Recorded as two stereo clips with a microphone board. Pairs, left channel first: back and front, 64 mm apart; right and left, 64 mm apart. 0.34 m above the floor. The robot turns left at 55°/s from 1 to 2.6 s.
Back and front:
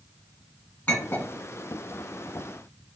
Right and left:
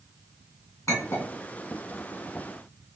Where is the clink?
120° right, 2 m; by 1.3 s 135° right, 2 m.